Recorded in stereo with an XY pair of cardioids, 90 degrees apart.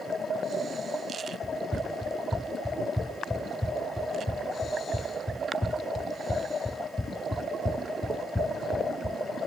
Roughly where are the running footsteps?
Ahead.